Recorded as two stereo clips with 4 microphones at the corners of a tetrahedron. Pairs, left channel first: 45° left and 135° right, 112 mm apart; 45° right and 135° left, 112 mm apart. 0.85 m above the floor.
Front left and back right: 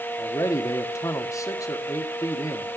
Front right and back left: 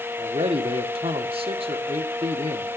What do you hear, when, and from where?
0.2 s a man speaking: 105° left, 1.6 m